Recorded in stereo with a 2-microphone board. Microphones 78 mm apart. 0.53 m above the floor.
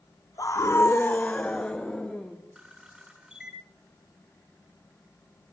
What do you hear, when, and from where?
0.4 s a scream: 50° left (ahead or behind), 1.0 m; by 2.4 s 10° left (ahead or behind), 3 m
2.5 s a camera shutter: 10° right (ahead or behind), 9.5 m